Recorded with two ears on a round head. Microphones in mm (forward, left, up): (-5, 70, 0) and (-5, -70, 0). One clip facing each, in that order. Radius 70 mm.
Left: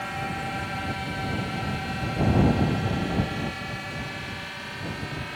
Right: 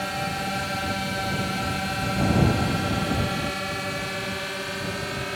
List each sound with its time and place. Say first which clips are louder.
0.0 s a drone: right 3 dB; 50° right (ahead or behind); by 5.4 s 60° right (ahead or behind)